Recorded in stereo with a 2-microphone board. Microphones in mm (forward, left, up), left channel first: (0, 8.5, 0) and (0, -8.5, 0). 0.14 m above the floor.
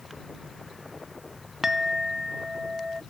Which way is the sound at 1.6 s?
30° right (ahead or behind).